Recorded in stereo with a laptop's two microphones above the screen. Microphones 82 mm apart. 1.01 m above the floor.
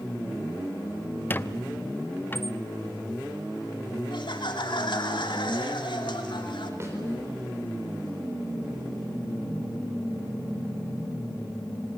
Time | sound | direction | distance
1.3 | a squeak | 25° left (ahead or behind) | 0.7 m
4.1 | laughter | 70° left (ahead or behind) | 2.5 m
6.8 | a snare drum | 35° right (ahead or behind) | 4 m